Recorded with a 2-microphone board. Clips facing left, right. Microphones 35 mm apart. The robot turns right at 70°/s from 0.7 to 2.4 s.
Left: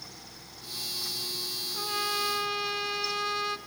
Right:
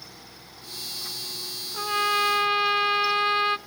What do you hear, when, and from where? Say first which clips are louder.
1.7 s a trumpet: right 8 dB; 135° right, 0.6 m; by 3.6 s 85° right, 0.6 m